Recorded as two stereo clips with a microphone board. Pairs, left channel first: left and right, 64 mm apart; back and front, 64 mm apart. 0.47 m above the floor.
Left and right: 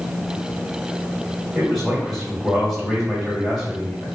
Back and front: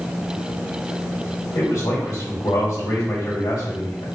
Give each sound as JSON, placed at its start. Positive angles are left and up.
{"t": 1.6, "sound": "a man speaking", "azimuth_deg": 180, "distance_m": 1.3}